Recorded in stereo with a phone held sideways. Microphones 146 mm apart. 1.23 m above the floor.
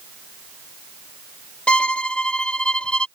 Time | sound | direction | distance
1.7 | a violin | 5° left (ahead or behind) | ?